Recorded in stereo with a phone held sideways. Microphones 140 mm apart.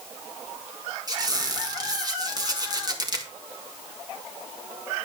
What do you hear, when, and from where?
1.1 s a squeak: 30° right (ahead or behind), 1.5 m